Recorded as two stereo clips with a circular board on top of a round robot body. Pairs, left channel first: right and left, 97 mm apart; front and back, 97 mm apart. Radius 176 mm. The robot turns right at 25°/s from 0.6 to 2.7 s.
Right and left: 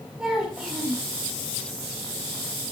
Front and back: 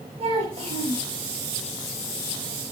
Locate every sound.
0.2 s a child speaking: 175° left, 3.5 m; by 1.1 s 175° right, 3.5 m